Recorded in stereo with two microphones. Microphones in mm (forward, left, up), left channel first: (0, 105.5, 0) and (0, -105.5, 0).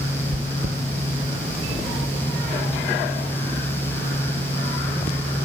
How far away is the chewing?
About 0.9 m.